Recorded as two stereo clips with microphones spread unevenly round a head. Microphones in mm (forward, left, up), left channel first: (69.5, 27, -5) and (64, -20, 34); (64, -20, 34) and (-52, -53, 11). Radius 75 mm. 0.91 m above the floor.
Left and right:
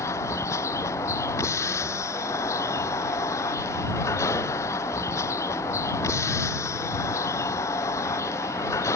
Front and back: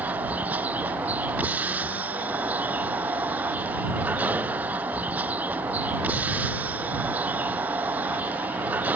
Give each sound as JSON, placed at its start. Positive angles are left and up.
{"t": 0.0, "sound": "a vehicle", "azimuth_deg": 115}